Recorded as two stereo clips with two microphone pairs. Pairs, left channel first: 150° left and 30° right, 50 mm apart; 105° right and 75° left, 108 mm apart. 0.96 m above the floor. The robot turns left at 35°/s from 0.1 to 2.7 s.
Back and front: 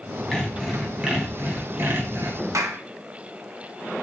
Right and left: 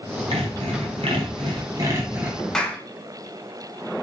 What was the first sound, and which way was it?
Sawing, 70° left.